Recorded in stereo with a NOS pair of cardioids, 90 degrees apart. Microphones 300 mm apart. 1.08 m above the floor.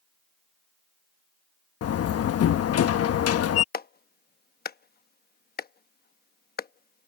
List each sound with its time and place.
1.8 s a door slam: 50° left
3.7 s a clap: 30° left